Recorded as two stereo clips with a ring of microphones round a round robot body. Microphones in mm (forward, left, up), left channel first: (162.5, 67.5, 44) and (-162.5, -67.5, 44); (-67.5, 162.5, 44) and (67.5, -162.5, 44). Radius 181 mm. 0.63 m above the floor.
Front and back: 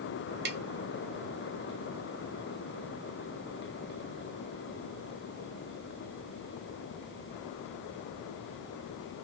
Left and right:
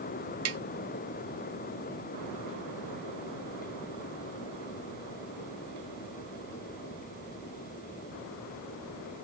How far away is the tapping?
About 1.0 m.